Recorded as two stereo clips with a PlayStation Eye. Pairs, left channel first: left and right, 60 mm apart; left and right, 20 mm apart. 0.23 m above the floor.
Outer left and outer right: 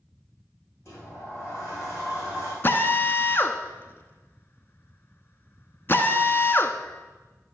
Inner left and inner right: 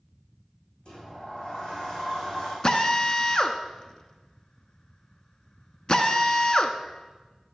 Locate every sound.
0.8 s a sliding door: 50° left (ahead or behind), 6 m
2.6 s a drill: 35° left (ahead or behind), 0.9 m